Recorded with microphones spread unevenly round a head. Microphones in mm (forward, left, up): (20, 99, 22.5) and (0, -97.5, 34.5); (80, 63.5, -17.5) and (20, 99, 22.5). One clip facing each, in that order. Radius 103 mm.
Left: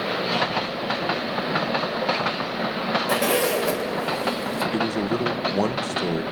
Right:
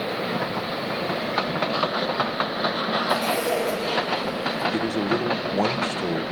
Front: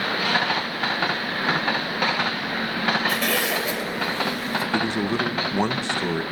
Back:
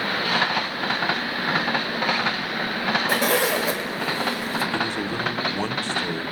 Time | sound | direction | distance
3.1 | a zipper | 105° left | 2.5 m
4.7 | a man speaking | 5° left | 1.0 m